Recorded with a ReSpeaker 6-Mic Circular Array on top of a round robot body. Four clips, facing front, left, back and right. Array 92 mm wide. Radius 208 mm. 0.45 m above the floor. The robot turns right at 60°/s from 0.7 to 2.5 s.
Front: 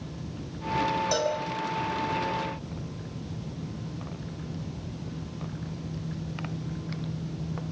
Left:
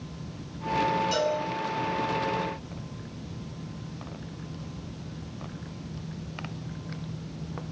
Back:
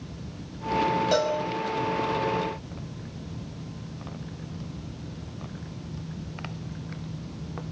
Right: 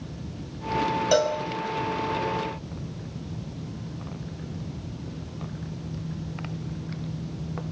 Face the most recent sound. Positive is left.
turn(degrees=-25)